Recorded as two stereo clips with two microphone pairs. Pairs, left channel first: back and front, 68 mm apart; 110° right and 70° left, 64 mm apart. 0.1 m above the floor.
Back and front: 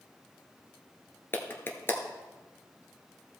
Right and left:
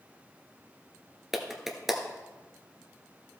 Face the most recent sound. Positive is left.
turn(degrees=150)